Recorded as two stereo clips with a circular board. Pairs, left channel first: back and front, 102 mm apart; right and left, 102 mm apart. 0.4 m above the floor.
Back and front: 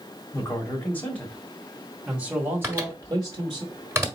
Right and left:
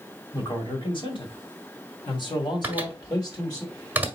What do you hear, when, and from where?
0.3 s a man speaking: 125° right, 1.8 m; by 3.6 s 40° right, 1.8 m
2.6 s a microwave: 35° left, 1.2 m